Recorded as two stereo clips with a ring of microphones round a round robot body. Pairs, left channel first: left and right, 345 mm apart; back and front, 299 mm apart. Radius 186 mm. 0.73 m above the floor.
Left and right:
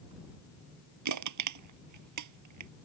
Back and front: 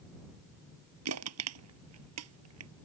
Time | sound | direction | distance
1.1 | crushing | 50° right | ?